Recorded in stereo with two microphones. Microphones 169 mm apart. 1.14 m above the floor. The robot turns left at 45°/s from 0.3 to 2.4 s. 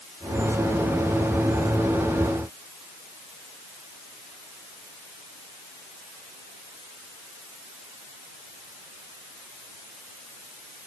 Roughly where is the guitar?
No guitar in this recording.